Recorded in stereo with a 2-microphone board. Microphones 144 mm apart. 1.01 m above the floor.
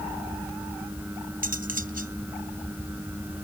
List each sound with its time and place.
1.4 s cutlery clinking: 80° right